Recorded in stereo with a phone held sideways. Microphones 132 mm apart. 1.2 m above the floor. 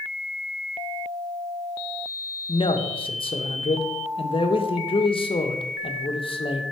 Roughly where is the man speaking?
Left.